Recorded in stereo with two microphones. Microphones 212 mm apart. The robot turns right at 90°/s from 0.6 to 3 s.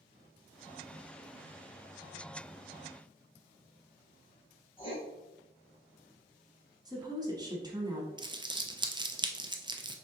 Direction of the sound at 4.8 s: 25° left (ahead or behind).